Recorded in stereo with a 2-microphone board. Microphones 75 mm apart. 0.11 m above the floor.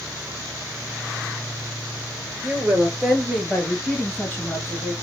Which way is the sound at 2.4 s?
30° right (ahead or behind).